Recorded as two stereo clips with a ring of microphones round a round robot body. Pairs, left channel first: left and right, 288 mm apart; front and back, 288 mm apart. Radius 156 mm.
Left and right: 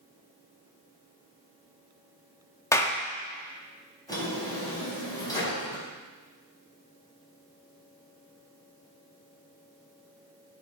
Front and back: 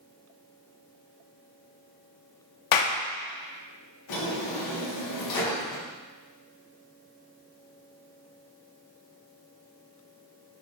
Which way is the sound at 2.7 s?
10° left.